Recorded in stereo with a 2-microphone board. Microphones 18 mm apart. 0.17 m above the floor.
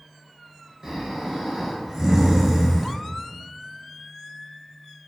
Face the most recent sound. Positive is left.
turn(degrees=-25)  # may be behind; listen again after turning